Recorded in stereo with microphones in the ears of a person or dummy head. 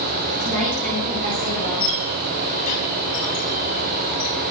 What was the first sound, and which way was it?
A woman speaking, 65° right (ahead or behind).